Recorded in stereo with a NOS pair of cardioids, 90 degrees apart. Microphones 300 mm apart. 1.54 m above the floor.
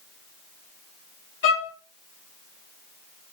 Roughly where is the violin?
Ahead left.